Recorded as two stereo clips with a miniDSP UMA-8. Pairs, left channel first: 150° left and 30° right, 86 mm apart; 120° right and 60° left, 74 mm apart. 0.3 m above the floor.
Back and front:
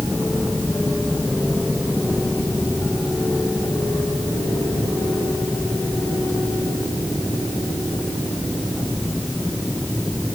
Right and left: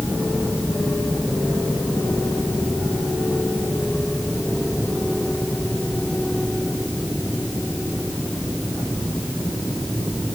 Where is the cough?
No cough in this recording.